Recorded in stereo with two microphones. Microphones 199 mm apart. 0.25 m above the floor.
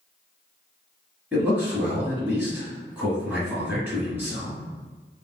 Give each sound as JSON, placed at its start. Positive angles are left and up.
{"t": 1.3, "sound": "a man speaking", "side_deg": -10, "distance_m": 1.6}